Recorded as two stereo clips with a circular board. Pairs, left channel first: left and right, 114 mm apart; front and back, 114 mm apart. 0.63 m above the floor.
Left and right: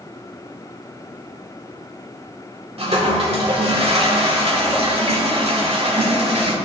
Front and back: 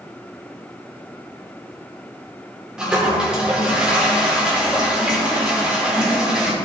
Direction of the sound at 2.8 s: 100° right.